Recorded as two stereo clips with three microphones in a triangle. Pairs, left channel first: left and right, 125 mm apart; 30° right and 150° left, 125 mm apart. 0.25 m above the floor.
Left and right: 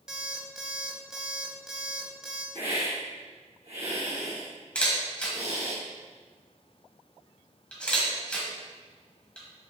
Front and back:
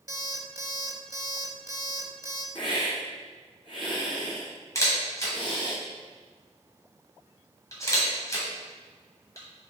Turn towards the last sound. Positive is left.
turn(degrees=15)